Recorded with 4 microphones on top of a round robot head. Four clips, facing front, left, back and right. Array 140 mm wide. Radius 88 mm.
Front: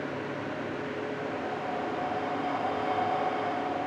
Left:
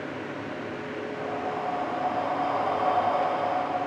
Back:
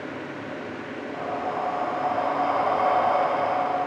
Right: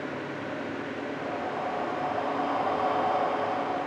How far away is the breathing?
About 1.2 m.